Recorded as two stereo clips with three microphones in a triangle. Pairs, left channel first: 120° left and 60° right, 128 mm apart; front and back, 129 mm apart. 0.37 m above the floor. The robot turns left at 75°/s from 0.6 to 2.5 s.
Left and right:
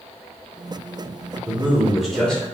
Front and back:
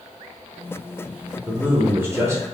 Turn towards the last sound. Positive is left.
turn(degrees=175)